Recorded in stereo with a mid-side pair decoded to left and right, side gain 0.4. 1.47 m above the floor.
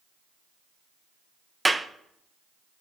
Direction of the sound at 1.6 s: 15° right.